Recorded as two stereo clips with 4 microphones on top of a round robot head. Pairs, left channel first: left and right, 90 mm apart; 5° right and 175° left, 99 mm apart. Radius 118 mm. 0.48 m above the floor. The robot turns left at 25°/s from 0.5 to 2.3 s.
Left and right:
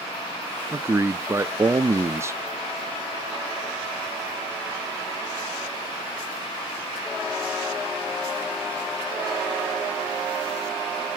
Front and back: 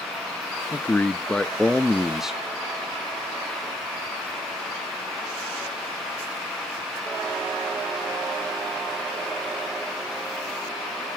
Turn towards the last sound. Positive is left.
turn(degrees=-105)